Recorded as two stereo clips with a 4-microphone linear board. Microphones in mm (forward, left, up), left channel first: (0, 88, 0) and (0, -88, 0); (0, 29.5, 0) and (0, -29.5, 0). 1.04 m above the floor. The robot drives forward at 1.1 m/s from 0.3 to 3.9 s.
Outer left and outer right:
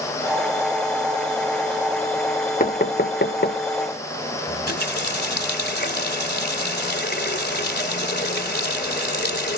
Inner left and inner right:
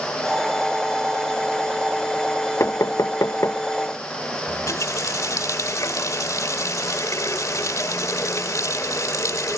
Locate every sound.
2.6 s knocking: 50° left (ahead or behind)
4.5 s a running tap: 65° left (ahead or behind)